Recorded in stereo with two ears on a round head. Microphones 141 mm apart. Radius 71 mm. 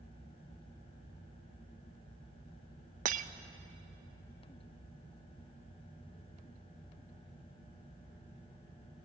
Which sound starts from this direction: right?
Breaking glass, at 3.0 s.